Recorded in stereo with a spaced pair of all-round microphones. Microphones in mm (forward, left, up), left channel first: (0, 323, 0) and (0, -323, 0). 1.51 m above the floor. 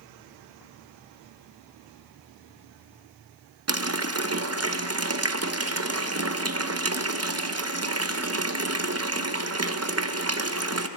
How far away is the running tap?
About 0.7 m.